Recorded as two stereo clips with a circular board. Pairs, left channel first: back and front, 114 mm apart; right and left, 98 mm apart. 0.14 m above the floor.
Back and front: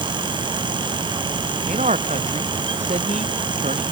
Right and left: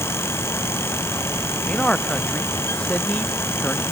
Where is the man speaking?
10° right.